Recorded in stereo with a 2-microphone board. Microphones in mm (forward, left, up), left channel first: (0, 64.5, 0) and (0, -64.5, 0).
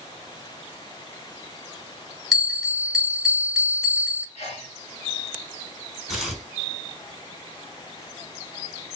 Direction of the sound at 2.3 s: Centre (ahead or behind).